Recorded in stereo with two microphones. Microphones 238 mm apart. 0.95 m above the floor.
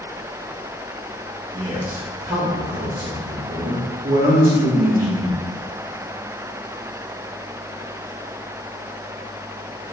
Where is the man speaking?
30° right (ahead or behind), 1.1 m.